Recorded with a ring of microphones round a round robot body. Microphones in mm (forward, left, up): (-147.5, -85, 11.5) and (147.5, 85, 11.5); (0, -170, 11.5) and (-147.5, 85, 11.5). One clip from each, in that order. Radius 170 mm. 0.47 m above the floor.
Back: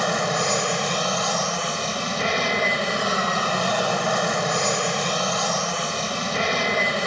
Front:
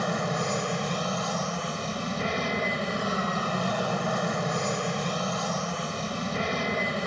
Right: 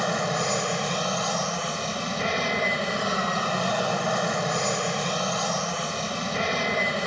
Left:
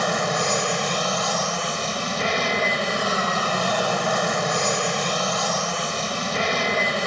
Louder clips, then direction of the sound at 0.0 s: Back 6 dB, left 3 dB; 170° left.